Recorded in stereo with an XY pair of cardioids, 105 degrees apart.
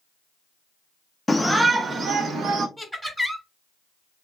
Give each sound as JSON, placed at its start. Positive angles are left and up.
{"t": 1.3, "sound": "a shout", "azimuth_deg": 10, "distance_m": 0.5}
{"t": 2.8, "sound": "laughter", "azimuth_deg": 0, "distance_m": 1.2}